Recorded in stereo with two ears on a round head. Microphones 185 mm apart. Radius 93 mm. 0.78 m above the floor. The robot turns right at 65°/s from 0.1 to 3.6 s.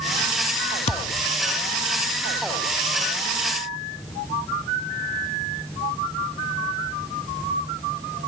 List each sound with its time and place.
0.9 s a thud: 30° left (ahead or behind), 0.6 m; by 1.3 s 45° left (ahead or behind), 0.6 m